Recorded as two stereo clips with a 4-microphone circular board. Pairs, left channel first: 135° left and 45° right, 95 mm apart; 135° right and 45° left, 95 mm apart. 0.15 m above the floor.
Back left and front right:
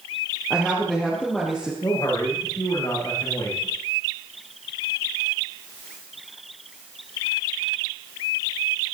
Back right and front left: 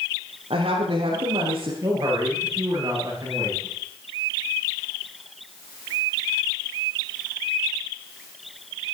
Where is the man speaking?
90° left, 10 m.